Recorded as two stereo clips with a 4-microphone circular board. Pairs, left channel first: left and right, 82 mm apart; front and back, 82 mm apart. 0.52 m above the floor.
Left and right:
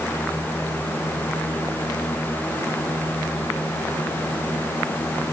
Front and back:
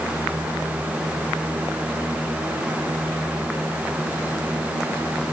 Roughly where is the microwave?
No microwave in this recording.